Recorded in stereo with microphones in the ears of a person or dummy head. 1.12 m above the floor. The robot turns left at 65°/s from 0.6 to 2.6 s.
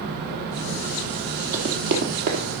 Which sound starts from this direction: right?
Running footsteps, at 1.5 s.